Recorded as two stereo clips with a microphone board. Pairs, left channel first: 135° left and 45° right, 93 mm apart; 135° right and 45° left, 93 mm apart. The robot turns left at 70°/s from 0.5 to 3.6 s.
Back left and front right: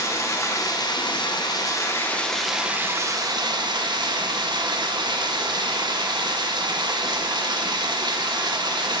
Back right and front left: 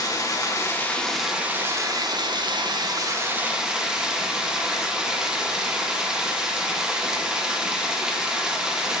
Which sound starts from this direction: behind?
Running water, at 0.0 s.